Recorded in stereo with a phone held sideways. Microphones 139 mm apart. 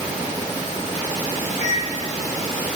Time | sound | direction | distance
1.6 | a microwave | 60° left (ahead or behind) | 9 m